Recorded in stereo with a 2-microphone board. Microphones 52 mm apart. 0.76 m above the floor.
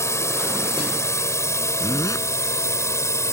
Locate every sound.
0.0 s a drone: 65° left (ahead or behind)
1.8 s a zipper: 85° left